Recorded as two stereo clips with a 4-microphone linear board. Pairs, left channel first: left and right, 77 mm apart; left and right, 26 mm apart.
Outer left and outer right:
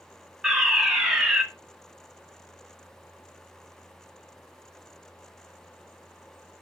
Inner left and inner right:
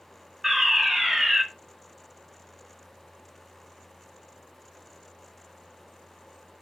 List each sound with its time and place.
0.4 s a fire alarm: 5° right (ahead or behind), 1.9 m